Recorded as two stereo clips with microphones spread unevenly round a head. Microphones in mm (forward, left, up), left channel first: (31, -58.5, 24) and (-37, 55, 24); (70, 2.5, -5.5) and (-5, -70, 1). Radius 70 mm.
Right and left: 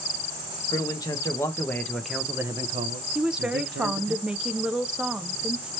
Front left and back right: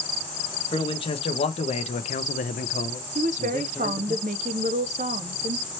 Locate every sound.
0.7 s a man speaking: 5° left, 1.2 m; by 4.2 s 125° left, 0.9 m
3.1 s a woman speaking: 155° right, 0.5 m